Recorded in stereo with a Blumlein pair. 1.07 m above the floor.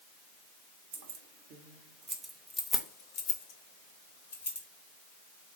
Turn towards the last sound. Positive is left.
turn(degrees=65)